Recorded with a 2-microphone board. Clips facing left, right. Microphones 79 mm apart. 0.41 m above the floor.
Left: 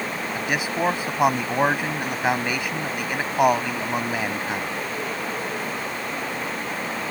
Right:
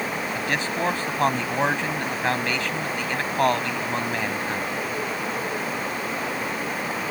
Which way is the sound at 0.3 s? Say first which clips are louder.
Left 3 dB; 10° left (ahead or behind).